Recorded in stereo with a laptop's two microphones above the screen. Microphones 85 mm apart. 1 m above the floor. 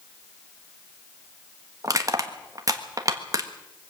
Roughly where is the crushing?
Right.